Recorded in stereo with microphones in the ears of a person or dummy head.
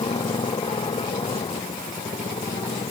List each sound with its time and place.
0.0 s a motorcycle: 20° left (ahead or behind)